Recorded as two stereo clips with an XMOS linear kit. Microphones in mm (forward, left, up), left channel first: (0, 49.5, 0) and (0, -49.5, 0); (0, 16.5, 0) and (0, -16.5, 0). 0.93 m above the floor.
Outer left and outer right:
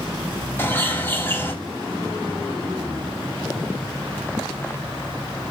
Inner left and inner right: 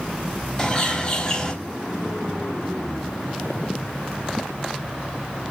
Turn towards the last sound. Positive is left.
turn(degrees=25)  # may be behind; listen again after turning